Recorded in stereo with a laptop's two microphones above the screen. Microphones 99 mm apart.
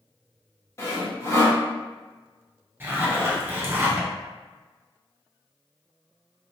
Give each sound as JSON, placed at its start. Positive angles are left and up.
{"t": 0.8, "sound": "sawing", "side_deg": 30, "distance_m": 1.3}
{"t": 2.8, "sound": "a zipper", "side_deg": -25, "distance_m": 0.6}